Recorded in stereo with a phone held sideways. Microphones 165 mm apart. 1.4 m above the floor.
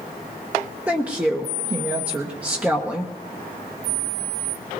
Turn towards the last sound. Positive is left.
turn(degrees=-10)  # may be behind; listen again after turning